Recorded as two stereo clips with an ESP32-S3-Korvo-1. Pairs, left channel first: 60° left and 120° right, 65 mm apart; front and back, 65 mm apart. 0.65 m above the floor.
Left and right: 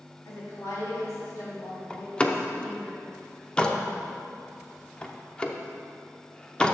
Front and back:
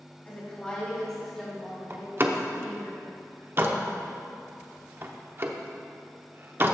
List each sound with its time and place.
0.2 s a woman speaking: 65° left, 3 m; by 2.9 s 105° left, 5 m
1.9 s a door slam: 135° left, 0.7 m